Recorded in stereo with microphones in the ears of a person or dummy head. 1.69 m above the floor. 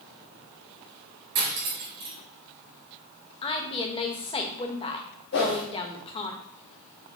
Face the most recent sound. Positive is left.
turn(degrees=60)  # may be behind; listen again after turning